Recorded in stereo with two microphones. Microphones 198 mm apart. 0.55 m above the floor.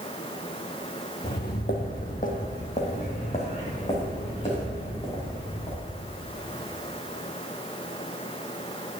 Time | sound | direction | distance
1.2 | footsteps | 60° left (ahead or behind) | 0.9 m